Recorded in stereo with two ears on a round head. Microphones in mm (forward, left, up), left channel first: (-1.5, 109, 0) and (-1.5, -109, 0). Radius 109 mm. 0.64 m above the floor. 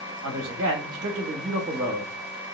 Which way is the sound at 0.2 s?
40° right (ahead or behind).